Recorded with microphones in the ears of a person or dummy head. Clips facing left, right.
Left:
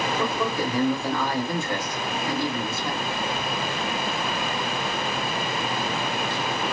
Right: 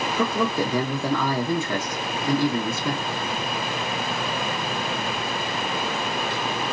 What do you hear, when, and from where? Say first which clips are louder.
0.2 s a man speaking: right 6 dB; 70° right (ahead or behind), 0.9 m